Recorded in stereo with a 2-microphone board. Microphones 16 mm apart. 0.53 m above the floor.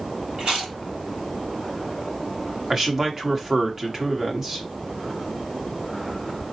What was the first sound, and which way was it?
Chewing, 60° right (ahead or behind).